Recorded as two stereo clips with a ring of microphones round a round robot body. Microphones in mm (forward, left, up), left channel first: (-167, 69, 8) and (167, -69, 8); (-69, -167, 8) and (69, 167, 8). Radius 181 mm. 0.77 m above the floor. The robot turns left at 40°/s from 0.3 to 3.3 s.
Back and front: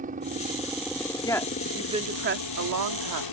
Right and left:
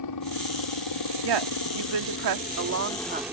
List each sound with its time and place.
0.0 s a helicopter: 90° right; by 3.3 s 150° left
1.2 s a woman speaking: 80° left; by 3.2 s straight ahead